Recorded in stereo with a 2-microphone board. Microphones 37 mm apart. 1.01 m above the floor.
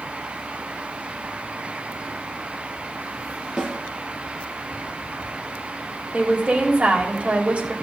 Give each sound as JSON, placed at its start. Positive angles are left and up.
{"t": 3.6, "sound": "a snare drum", "side_deg": -15, "distance_m": 5.0}
{"t": 6.1, "sound": "a woman speaking", "side_deg": -40, "distance_m": 3.0}